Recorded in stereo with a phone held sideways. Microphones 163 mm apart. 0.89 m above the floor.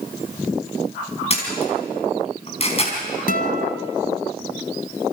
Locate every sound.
1.3 s a camera shutter: 40° left (ahead or behind), 5 m
3.3 s a guitar: 60° left (ahead or behind), 1.3 m